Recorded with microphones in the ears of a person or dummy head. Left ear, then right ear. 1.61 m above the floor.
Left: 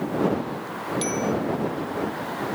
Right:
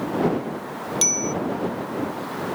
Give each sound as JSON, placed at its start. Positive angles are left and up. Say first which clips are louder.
{"t": 1.0, "sound": "a bicycle bell", "louder": "right 5 dB", "side_deg": -30}